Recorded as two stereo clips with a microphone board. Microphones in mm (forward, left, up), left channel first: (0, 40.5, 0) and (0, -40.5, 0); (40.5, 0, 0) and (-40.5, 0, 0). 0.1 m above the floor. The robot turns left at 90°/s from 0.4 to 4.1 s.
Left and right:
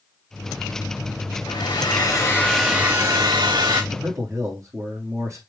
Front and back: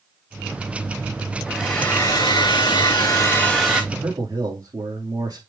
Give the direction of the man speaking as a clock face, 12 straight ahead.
4 o'clock.